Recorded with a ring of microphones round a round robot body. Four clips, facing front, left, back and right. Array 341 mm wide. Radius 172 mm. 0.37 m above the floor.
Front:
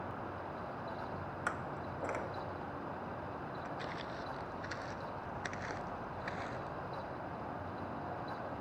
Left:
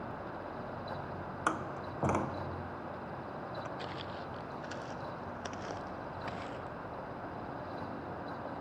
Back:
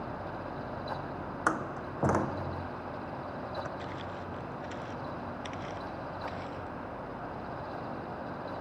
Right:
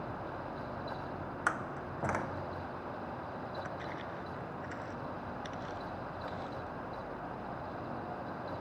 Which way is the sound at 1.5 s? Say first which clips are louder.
Left 1 dB, back 9 dB; 160° left.